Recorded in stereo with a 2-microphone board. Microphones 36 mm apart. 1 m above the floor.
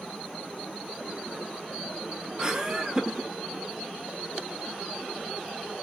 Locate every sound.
2.4 s laughter: 20° right (ahead or behind), 0.7 m